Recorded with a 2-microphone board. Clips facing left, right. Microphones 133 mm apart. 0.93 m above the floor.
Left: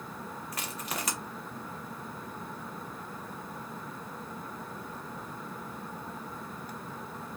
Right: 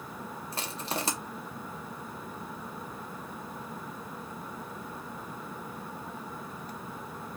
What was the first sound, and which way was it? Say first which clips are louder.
Crushing: right 4 dB; 25° right (ahead or behind).